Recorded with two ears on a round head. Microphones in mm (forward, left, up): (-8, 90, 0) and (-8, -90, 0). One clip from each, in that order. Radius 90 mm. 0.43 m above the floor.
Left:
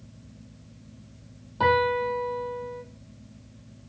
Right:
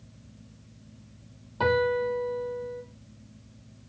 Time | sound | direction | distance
1.6 | a piano | 5° right (ahead or behind) | 2.5 m